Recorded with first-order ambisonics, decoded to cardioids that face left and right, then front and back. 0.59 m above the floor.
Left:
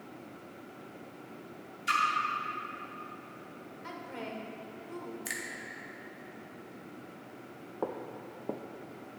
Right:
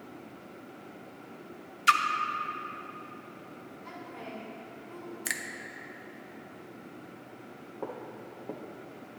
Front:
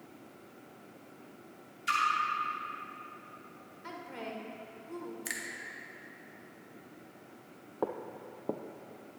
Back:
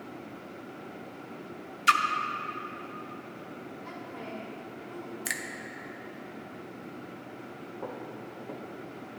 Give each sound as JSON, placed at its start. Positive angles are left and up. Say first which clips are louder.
{"t": 1.9, "sound": "a splash", "louder": "right 6 dB, back 8 dB", "azimuth_deg": -135, "distance_m": 0.6}
{"t": 3.8, "sound": "a woman speaking", "louder": "left 2 dB, front 2 dB", "azimuth_deg": 50, "distance_m": 1.6}
{"t": 5.2, "sound": "a finger snap", "louder": "right 5 dB, back 6 dB", "azimuth_deg": -130, "distance_m": 0.5}
{"t": 7.8, "sound": "footsteps", "louder": "left 3 dB, front 4 dB", "azimuth_deg": 25, "distance_m": 0.7}